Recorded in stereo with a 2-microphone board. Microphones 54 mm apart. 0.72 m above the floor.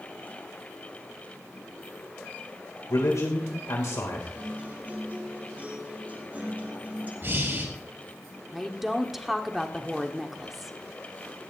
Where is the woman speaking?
5° right (ahead or behind), 1.6 m.